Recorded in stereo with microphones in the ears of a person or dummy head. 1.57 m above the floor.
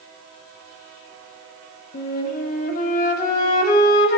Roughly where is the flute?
Left.